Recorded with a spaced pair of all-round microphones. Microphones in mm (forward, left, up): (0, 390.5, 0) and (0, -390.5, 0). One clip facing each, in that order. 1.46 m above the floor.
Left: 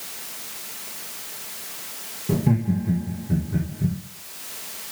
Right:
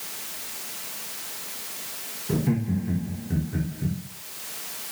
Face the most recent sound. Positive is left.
turn(degrees=65)  # may be behind; listen again after turning